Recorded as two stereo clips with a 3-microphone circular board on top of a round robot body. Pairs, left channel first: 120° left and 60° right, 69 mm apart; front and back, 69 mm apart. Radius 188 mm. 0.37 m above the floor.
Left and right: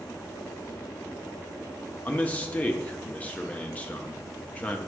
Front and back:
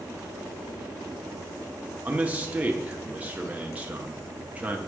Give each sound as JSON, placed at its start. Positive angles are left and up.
{"t": 2.0, "sound": "a man speaking", "azimuth_deg": 150, "distance_m": 1.0}